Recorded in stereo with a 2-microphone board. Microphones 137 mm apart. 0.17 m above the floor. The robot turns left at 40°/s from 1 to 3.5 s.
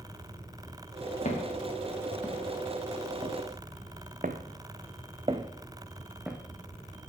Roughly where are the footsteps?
Left.